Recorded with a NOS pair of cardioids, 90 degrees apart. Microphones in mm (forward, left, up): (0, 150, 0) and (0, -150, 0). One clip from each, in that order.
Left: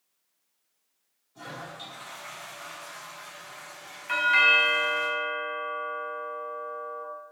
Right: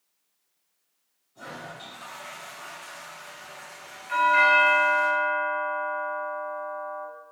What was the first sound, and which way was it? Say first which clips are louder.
A toilet flushing: even; 40° left.